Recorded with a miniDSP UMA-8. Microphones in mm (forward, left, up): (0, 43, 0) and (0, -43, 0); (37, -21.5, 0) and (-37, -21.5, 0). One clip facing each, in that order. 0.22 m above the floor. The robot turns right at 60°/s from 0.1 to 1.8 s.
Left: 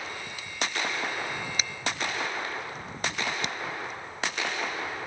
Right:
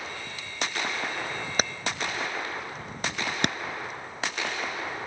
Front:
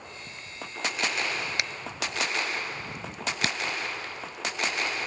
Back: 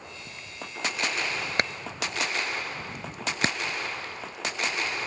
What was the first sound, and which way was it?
Hammering, 130° right.